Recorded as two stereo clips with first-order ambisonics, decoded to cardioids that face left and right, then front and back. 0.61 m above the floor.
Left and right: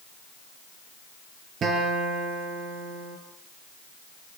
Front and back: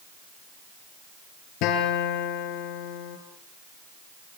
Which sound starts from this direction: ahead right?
A guitar, at 1.6 s.